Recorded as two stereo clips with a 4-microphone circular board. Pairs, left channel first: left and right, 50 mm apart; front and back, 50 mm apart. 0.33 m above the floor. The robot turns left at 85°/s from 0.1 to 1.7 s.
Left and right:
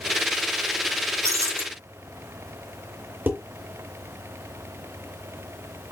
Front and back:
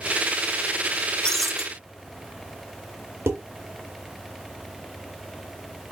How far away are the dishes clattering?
About 3.5 m.